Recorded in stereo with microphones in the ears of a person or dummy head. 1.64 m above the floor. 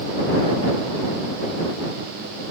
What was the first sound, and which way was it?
Only background noise.